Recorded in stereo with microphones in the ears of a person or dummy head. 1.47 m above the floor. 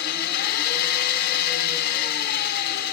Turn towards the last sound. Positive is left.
turn(degrees=65)  # may be behind; listen again after turning